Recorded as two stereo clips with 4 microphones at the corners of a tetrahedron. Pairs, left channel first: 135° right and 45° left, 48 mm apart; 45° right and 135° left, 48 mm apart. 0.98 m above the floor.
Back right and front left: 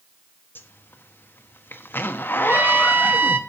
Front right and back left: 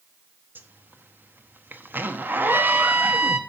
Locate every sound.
0.6 s a zipper: 175° right, 1.0 m
2.5 s a trumpet: 90° left, 1.0 m